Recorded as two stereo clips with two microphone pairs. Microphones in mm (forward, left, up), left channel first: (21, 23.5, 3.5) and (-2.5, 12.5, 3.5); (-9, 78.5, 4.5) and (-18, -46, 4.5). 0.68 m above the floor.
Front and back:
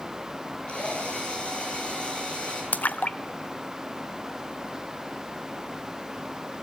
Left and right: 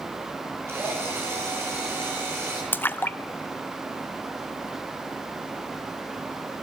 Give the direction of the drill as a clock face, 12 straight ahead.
1 o'clock.